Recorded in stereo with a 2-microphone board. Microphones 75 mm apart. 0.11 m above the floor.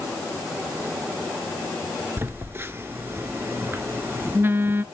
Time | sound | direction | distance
2.2 | a phone buzzing | 30° right (ahead or behind) | 1.0 m